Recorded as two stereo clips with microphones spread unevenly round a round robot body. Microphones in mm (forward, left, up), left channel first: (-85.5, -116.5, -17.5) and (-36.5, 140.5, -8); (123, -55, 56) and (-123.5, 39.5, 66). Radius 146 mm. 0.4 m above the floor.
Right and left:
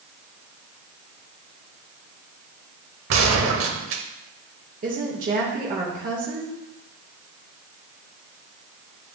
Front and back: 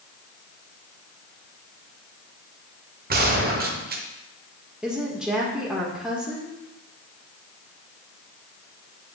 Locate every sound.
3.1 s a gunshot: 105° left, 0.9 m
4.8 s a woman speaking: 70° left, 1.1 m